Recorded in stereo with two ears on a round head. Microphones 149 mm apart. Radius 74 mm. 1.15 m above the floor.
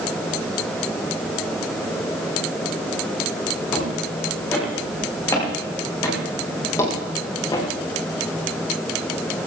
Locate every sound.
3.7 s footsteps: 15° left (ahead or behind), 9 m; by 7.7 s 25° left (ahead or behind), 3.5 m